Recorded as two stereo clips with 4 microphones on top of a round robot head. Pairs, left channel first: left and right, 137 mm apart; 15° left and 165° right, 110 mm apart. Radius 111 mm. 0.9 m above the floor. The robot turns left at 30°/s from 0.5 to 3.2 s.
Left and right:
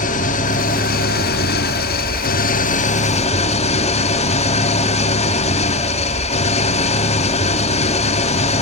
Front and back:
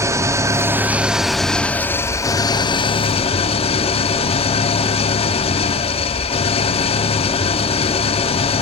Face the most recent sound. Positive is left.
turn(degrees=50)